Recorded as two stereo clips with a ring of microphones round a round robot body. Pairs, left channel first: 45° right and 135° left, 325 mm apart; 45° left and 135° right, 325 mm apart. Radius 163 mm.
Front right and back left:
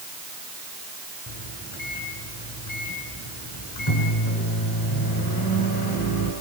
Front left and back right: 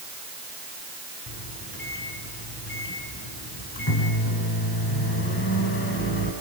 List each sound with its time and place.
1.3 s a microwave: 10° right, 5 m